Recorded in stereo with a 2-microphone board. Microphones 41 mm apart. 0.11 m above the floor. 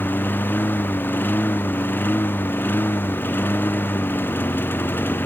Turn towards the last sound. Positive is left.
turn(degrees=65)  # may be behind; listen again after turning